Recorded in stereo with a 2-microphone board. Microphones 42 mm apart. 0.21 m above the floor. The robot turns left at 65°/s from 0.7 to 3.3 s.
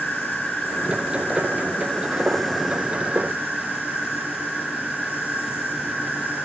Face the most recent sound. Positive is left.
turn(degrees=-50)